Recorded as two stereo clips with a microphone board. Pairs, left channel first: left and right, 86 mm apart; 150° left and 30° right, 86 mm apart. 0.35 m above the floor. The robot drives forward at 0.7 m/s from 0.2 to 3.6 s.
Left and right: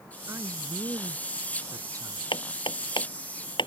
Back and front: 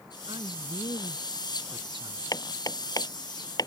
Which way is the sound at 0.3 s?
35° right.